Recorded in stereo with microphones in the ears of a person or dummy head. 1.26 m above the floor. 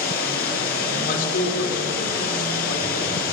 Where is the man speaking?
55° left (ahead or behind), 4 m.